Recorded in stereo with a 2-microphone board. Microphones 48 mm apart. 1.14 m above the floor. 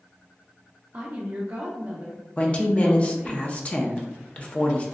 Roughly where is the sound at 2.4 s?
Left.